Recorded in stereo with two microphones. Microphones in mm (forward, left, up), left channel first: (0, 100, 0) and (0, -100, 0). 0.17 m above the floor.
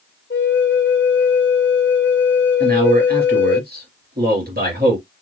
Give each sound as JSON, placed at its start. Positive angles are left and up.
{"t": 0.3, "sound": "a flute", "side_deg": 60, "distance_m": 0.7}
{"t": 2.6, "sound": "a man speaking", "side_deg": -50, "distance_m": 2.5}